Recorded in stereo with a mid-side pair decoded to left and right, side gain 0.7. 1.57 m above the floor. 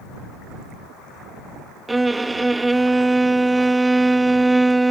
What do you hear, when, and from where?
1.9 s a violin: 10° right